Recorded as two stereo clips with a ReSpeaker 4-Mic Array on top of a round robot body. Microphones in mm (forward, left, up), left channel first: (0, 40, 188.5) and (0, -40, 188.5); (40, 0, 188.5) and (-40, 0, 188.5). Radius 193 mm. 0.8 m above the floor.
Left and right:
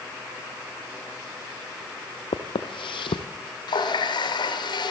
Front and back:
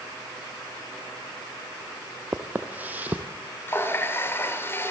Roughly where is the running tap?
Ahead left.